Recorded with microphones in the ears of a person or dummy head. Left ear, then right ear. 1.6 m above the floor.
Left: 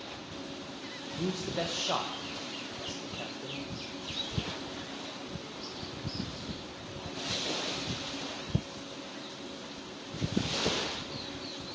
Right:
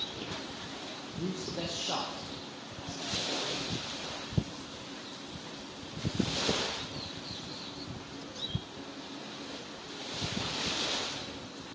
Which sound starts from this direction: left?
A man speaking, at 1.2 s.